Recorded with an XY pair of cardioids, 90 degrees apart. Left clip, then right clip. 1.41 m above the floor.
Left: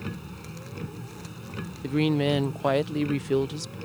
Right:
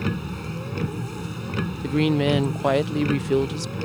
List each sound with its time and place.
0.0 s a vehicle: 65° right
1.8 s a woman speaking: 20° right